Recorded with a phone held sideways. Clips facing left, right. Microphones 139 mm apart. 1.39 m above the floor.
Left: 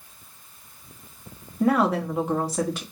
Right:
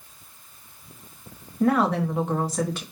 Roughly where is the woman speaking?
Centre.